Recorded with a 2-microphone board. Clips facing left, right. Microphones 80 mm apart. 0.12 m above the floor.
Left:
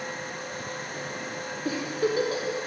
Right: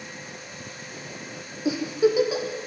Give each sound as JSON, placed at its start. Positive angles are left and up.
{"t": 1.6, "sound": "a giggle", "side_deg": -10, "distance_m": 5.0}